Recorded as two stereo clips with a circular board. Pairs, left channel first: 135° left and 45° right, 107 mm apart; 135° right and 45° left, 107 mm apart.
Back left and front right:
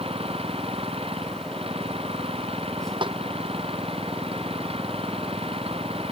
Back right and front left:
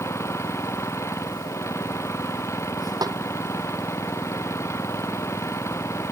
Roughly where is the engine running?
Right.